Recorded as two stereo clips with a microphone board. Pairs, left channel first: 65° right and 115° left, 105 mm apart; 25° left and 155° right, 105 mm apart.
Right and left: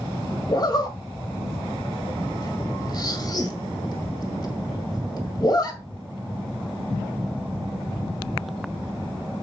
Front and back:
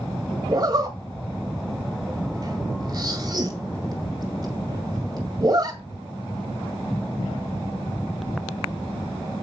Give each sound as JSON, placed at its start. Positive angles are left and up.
{"t": 0.5, "sound": "a zipper", "azimuth_deg": -115, "distance_m": 1.9}